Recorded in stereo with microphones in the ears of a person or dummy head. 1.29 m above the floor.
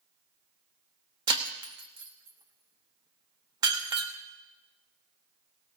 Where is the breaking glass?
15° right (ahead or behind), 0.8 m.